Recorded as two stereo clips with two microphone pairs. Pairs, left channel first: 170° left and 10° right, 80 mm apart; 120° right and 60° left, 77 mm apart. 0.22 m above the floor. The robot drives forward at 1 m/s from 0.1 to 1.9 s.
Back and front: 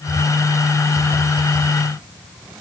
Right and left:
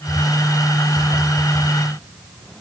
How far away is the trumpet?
No trumpet in this recording.